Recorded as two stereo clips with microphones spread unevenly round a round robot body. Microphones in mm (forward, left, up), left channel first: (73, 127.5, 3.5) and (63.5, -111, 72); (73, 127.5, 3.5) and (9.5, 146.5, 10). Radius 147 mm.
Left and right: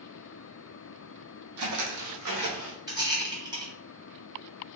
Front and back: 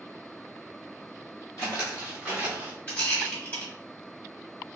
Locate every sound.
1.6 s footsteps: 90° right, 1.0 m; by 2.8 s 120° right, 1.4 m
2.9 s a rattle: 5° right, 1.5 m